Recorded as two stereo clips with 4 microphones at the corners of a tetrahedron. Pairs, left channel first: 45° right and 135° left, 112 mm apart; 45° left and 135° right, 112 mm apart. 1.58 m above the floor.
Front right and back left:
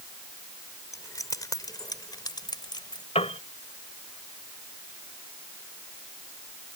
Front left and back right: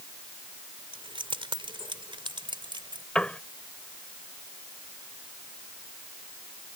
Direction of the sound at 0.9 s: 105° right.